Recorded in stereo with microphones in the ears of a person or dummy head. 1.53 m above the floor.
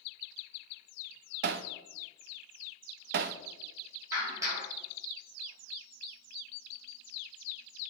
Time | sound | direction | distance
1.4 | hammering | 45° right (ahead or behind) | 0.5 m
4.1 | a clap | 20° right (ahead or behind) | 5.5 m